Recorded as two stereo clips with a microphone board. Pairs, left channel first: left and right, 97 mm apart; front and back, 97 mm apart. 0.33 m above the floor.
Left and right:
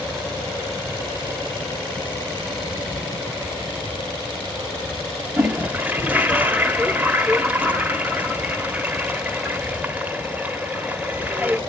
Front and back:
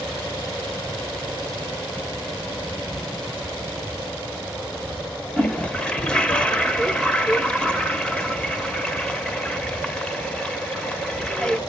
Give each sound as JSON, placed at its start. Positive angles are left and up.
{"t": 5.4, "sound": "a toilet flushing", "azimuth_deg": -55, "distance_m": 1.0}